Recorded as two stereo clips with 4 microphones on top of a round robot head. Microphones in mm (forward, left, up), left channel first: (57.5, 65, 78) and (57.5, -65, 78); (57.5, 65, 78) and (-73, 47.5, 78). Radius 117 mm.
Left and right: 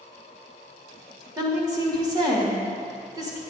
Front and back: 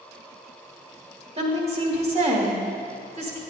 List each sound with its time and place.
1.4 s a woman speaking: 145° right, 1.6 m